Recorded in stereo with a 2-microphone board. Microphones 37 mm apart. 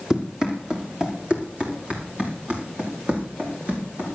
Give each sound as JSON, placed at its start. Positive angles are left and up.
{"t": 0.1, "sound": "running footsteps", "side_deg": -20, "distance_m": 3.0}